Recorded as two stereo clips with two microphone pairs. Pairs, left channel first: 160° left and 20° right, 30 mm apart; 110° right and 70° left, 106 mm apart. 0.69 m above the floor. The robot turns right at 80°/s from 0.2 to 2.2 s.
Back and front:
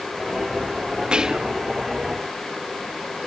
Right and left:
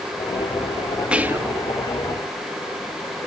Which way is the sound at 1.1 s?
Straight ahead.